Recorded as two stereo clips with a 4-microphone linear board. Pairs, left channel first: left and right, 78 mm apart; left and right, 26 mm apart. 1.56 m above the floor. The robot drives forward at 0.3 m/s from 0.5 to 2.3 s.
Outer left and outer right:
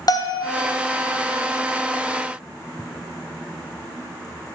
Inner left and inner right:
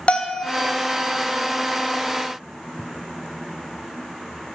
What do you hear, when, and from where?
0.1 s a bell: 50° left (ahead or behind), 0.6 m